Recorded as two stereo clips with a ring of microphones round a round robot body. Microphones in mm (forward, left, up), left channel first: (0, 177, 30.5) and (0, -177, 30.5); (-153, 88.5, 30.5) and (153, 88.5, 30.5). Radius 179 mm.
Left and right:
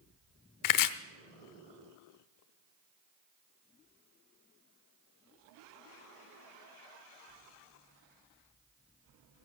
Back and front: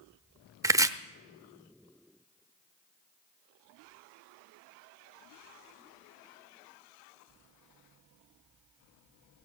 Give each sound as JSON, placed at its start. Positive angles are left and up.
{"t": 0.6, "sound": "chopping", "azimuth_deg": 80, "distance_m": 0.8}